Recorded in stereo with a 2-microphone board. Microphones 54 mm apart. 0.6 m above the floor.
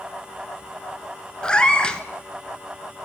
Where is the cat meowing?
15° left (ahead or behind), 0.5 m.